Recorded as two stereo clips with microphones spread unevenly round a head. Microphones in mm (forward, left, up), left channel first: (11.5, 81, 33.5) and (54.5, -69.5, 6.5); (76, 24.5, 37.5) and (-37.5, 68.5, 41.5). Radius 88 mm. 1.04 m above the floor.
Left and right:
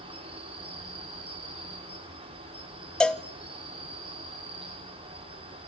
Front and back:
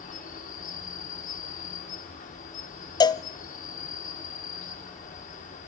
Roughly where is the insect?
Ahead.